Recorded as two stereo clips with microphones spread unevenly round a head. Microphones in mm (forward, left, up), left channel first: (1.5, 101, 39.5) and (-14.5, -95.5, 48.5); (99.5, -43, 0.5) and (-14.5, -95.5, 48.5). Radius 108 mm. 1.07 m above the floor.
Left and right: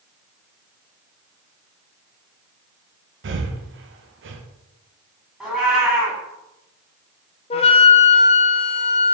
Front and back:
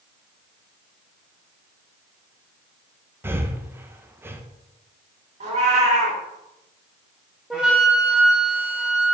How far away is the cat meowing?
About 1.9 m.